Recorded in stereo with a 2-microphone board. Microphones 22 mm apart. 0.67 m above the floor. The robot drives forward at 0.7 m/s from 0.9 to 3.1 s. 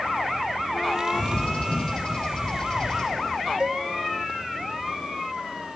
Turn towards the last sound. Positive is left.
turn(degrees=-40)  # may be behind; listen again after turning